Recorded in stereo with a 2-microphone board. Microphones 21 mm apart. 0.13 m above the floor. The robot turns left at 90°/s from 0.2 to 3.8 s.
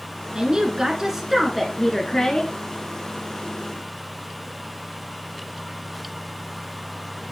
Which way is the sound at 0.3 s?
65° right.